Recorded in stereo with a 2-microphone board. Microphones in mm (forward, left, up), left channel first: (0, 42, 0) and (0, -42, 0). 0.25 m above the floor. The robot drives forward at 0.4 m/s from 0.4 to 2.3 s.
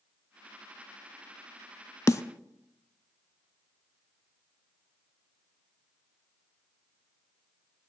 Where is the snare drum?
40° left (ahead or behind), 0.6 m; by 2.2 s 35° left (ahead or behind), 0.6 m.